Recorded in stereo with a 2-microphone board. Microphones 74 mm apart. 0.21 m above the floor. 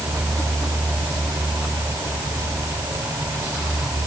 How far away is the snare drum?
No snare drum in this recording.